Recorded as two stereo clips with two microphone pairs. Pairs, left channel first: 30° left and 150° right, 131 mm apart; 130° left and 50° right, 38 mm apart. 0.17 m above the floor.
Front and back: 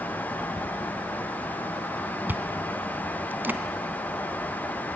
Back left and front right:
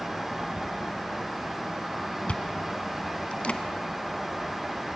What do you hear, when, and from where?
2.3 s chewing: 145° left, 1.1 m